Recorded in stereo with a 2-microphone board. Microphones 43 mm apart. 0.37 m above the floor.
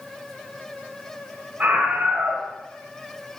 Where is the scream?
35° right (ahead or behind), 1.6 m.